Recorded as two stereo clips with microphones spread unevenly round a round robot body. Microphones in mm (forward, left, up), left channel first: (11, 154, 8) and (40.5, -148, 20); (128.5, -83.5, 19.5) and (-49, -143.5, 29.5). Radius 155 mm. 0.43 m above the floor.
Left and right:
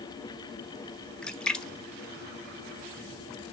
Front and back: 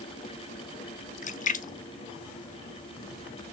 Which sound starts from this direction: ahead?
A splash, at 1.2 s.